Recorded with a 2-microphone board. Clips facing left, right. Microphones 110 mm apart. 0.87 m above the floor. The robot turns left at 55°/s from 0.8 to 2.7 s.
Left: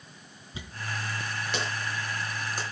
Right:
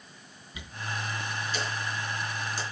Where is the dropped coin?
30° left (ahead or behind), 4 m; by 2.6 s 50° left (ahead or behind), 4 m.